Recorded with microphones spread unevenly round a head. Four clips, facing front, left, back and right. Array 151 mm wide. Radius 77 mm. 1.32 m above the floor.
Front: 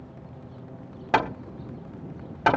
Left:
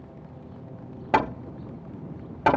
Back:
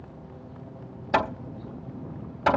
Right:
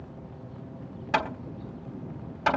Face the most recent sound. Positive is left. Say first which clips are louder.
# left 5 dB, front 1 dB
turn(degrees=65)